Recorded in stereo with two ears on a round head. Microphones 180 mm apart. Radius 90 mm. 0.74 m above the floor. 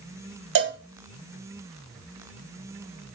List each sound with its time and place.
0.6 s a cowbell: 65° right (ahead or behind), 1.2 m